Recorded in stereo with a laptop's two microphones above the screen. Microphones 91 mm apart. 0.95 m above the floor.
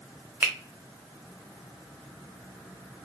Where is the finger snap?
20° right (ahead or behind), 0.6 m.